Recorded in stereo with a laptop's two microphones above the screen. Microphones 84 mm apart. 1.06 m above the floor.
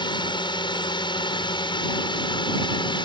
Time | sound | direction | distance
0.0 | a drone | 70° left (ahead or behind) | ?